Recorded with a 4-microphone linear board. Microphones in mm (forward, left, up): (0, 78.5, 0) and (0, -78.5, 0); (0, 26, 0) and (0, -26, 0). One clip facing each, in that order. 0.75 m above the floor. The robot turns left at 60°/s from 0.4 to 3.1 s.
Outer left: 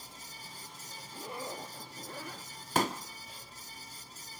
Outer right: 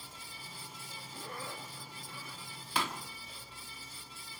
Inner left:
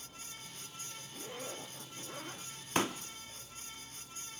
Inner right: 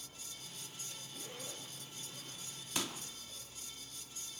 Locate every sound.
1.1 s a zipper: 175° left, 0.7 m; by 2.5 s 90° left, 0.7 m
2.8 s a pop: 45° left (ahead or behind), 0.6 m; by 3.0 s 30° left (ahead or behind), 0.6 m